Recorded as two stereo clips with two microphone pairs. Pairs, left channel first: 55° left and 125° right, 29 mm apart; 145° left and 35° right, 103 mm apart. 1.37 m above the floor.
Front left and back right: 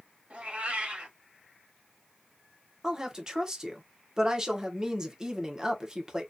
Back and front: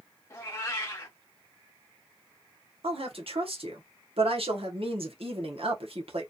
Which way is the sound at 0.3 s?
155° right.